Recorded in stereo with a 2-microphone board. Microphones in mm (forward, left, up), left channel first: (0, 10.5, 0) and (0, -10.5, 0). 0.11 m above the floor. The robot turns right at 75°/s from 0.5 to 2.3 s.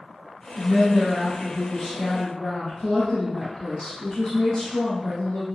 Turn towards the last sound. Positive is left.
turn(degrees=70)